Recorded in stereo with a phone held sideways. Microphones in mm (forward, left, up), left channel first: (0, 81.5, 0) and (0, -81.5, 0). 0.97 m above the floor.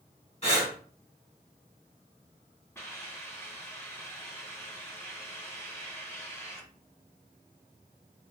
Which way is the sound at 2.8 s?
15° left (ahead or behind).